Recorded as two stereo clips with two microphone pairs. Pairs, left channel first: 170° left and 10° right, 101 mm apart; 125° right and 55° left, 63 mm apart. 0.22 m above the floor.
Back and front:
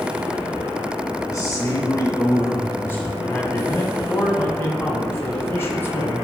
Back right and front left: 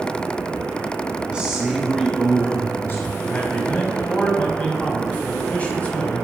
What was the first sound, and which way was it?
A man speaking, 120° left.